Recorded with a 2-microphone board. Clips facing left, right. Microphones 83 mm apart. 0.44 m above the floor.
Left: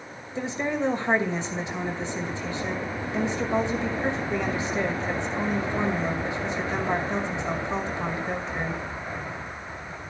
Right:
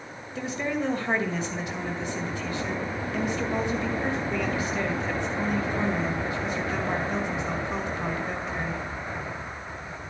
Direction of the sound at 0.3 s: 25° left (ahead or behind).